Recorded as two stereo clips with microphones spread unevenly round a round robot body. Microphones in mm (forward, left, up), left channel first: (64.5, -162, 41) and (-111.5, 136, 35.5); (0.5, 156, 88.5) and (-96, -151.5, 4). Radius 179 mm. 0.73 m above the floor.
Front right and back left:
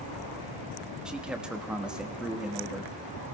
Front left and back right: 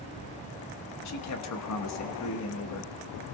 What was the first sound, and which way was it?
A man speaking, 35° left.